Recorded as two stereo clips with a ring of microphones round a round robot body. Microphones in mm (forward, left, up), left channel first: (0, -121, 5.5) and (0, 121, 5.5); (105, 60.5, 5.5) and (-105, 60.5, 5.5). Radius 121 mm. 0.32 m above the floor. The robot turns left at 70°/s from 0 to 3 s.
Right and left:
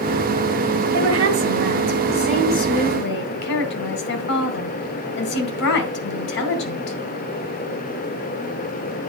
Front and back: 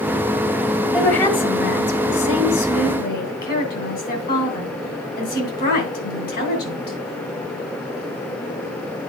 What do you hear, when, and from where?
0.9 s a woman speaking: 95° left, 2.5 m; by 7.0 s 50° right, 2.5 m